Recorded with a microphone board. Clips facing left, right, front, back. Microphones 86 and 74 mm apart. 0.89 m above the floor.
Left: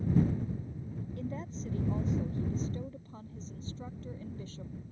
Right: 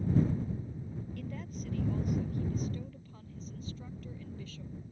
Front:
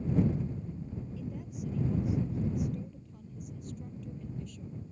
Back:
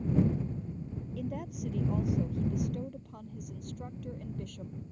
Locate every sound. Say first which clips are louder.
1.2 s a woman speaking: left 5 dB, back 3 dB; 155° left; by 4.7 s 150° left